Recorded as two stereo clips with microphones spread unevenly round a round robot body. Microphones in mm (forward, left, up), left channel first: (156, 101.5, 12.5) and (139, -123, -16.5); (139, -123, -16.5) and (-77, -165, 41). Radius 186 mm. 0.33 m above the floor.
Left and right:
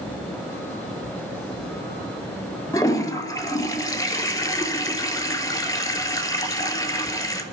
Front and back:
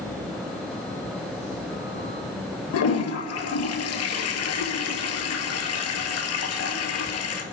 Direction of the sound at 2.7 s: 10° left.